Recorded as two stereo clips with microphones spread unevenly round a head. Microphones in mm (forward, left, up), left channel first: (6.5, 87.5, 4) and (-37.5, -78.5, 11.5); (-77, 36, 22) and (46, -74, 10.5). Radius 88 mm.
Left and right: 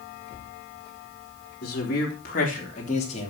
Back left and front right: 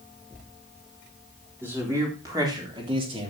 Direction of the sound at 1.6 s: 40° left.